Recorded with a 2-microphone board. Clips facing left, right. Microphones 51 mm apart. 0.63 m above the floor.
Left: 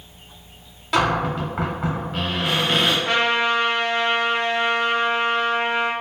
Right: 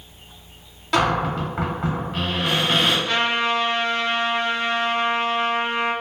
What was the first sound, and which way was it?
A cupboard door, 5° left (ahead or behind).